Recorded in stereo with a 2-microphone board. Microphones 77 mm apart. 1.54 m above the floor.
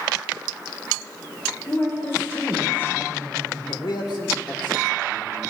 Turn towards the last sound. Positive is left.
turn(degrees=75)  # may be behind; listen again after turning